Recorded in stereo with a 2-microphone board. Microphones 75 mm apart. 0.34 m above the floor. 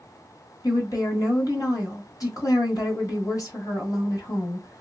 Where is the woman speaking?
55° left (ahead or behind), 1.5 m.